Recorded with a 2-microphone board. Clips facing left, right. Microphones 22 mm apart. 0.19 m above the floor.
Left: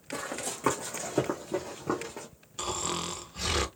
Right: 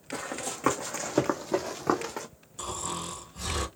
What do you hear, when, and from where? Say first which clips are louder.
0.1 s running footsteps: right 1 dB; 10° right (ahead or behind), 1.0 m; by 2.3 s 70° right (ahead or behind), 0.6 m
2.6 s snoring: left 2 dB; 35° left (ahead or behind), 0.5 m